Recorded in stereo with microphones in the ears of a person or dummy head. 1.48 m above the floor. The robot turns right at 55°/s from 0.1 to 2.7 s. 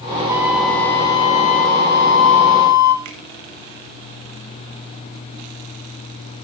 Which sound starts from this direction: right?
A finger snap, at 3.0 s.